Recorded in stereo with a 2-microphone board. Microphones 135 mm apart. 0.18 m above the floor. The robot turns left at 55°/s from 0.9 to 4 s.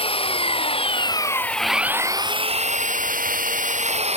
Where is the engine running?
40° left; by 4.2 s 130° right.